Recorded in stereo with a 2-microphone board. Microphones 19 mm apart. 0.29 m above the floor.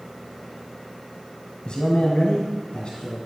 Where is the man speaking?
45° left (ahead or behind), 1.5 m; by 3.2 s 55° left (ahead or behind), 2.5 m.